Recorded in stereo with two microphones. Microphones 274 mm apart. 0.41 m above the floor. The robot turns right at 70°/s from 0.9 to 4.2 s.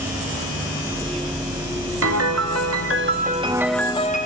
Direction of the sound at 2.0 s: 120° right.